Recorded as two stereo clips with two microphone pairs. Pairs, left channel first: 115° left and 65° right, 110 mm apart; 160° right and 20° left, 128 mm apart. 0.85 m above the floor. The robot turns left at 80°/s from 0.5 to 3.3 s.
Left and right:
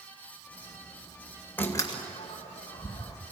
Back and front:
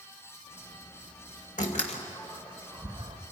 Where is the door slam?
170° right, 2.5 m; by 3.2 s 60° left, 2.5 m.